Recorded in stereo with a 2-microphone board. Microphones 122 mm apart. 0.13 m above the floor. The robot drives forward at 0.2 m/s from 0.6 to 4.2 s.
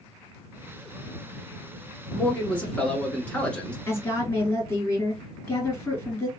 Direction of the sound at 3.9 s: 20° left (ahead or behind).